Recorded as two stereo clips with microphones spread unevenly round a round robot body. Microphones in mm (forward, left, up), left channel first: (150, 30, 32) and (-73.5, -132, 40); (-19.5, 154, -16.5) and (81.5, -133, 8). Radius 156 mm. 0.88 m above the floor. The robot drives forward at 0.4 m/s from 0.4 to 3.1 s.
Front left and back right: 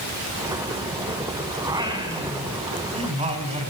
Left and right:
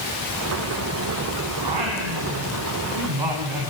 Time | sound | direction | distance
1.6 | singing | 65° right | 4 m